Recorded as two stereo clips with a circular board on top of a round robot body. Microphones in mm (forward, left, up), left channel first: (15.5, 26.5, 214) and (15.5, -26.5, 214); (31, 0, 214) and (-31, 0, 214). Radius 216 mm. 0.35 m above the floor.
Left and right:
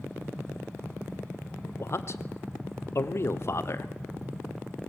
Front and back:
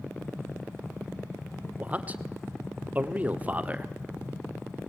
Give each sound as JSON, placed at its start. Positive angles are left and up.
{"t": 1.8, "sound": "a man speaking", "azimuth_deg": 115, "distance_m": 1.5}